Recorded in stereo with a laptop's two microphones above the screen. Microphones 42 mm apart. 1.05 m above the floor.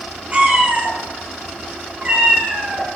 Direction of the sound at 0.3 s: 30° right (ahead or behind).